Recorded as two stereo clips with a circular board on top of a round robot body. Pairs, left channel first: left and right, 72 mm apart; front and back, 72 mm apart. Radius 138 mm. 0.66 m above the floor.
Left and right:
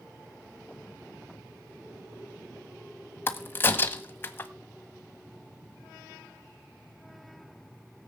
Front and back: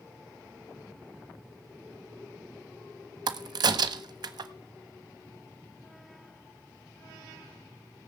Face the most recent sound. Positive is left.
turn(degrees=150)